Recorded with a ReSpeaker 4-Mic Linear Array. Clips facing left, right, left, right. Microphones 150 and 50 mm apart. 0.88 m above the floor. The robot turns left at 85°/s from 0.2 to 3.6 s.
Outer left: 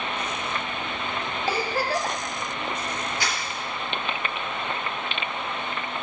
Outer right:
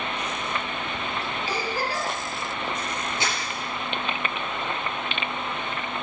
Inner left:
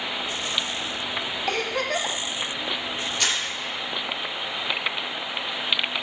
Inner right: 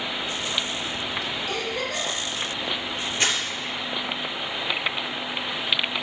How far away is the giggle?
About 1.1 m.